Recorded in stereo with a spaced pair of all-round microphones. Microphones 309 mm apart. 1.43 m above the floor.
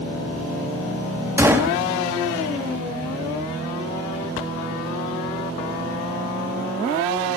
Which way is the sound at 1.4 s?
10° right (ahead or behind).